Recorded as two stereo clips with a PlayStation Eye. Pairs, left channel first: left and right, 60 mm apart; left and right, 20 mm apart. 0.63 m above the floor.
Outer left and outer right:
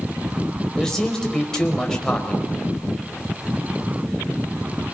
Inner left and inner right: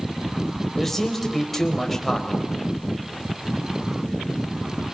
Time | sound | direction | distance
0.8 | a man speaking | 10° left (ahead or behind) | 3 m